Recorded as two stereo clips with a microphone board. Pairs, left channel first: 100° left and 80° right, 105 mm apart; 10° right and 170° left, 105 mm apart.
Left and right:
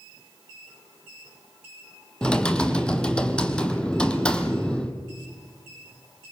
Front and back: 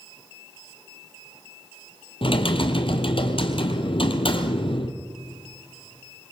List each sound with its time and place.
2.2 s typing on a keyboard: 20° left, 2 m